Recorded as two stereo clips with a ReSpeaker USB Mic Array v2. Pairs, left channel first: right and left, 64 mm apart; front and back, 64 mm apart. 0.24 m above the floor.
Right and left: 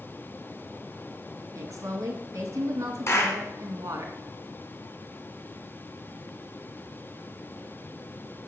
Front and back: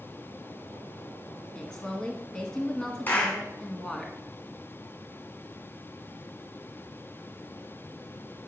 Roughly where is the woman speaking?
Left.